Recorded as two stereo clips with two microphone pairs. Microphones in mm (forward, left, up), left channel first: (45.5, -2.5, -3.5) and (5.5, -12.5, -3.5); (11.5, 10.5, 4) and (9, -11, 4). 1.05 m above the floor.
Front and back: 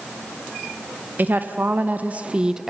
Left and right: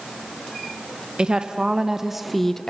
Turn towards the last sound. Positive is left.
turn(degrees=115)